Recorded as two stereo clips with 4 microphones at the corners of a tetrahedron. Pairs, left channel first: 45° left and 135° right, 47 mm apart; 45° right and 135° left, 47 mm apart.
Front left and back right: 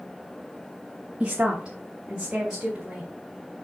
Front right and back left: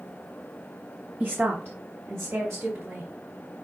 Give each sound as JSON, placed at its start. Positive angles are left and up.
{"t": 1.2, "sound": "a woman speaking", "azimuth_deg": 175, "distance_m": 0.8}